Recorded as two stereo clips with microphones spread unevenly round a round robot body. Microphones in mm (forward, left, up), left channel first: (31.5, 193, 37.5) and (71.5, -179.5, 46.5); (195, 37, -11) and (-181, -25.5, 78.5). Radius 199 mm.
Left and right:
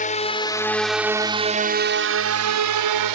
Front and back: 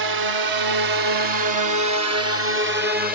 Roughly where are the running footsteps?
No running footsteps in this recording.